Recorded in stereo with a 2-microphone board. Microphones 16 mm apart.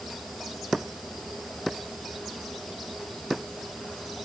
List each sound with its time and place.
Only background noise.